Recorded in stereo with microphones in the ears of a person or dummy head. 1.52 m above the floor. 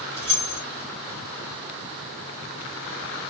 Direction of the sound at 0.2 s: 30° right (ahead or behind).